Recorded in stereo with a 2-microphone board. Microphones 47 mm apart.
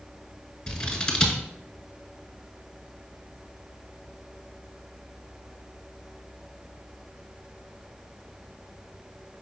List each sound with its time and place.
0.7 s scissors: 10° left (ahead or behind), 0.9 m